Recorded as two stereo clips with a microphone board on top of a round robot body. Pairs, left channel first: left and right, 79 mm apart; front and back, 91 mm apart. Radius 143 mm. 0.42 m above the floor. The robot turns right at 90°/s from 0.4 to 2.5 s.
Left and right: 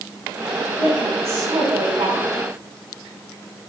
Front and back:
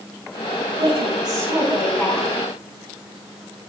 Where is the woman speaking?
170° left, 4.5 m; by 2.4 s 45° right, 4.5 m.